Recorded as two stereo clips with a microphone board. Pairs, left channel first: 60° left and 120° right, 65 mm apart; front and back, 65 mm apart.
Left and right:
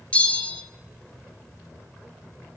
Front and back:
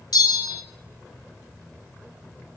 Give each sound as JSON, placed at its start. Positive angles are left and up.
{"t": 0.1, "sound": "a bell", "azimuth_deg": -5, "distance_m": 0.6}